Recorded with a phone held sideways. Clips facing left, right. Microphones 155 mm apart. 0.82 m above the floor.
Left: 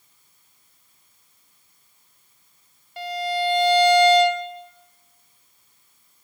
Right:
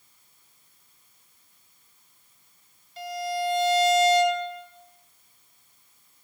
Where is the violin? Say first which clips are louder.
Left 4 dB; 65° left (ahead or behind), 1.8 m.